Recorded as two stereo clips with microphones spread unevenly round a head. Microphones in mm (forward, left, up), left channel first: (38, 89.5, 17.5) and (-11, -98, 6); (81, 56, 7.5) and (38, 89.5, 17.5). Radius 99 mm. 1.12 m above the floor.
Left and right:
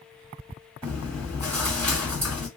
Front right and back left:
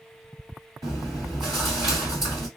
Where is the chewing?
175° left, 1.8 m.